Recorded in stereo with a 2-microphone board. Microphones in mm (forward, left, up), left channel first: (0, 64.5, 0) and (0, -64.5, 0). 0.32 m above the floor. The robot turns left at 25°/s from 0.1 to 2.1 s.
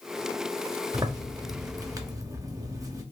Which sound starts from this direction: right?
A zipper, at 0.9 s.